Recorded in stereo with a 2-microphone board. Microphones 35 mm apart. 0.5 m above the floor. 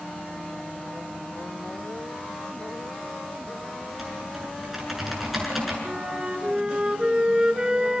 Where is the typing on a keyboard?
5° right (ahead or behind), 7 m.